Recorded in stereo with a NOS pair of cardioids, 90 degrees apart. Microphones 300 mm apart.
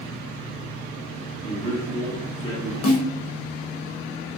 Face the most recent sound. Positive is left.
turn(degrees=65)